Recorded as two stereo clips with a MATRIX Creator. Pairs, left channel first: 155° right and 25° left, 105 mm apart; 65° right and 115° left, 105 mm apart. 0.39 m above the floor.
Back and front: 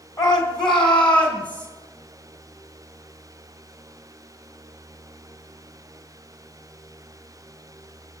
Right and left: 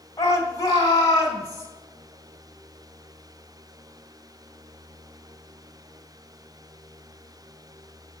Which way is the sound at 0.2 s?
120° right.